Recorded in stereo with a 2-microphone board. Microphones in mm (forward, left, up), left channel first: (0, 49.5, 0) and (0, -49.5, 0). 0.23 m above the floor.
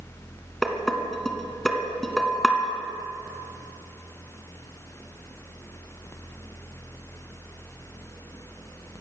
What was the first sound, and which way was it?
Dishes clattering, 5° left (ahead or behind).